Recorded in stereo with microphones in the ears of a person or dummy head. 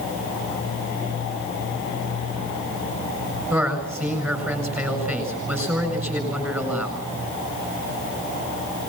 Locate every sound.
3.5 s a man speaking: 5° right (ahead or behind), 6 m